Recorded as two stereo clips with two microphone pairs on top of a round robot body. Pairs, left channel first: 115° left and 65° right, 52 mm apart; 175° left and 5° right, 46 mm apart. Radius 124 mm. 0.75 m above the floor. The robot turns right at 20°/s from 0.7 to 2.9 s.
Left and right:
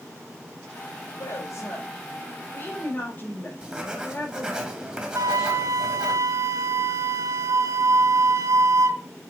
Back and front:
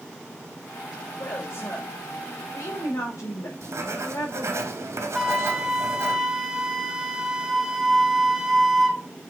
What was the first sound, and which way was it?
A woman speaking, 135° left.